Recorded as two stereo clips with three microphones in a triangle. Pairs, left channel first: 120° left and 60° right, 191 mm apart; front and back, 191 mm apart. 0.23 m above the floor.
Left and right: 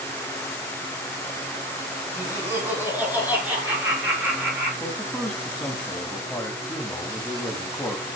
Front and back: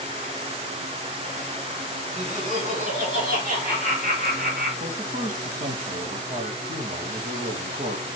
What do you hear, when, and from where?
2.2 s laughter: 135° right, 2.5 m; by 4.7 s 145° right, 4.5 m
4.8 s a man speaking: 160° right, 1.5 m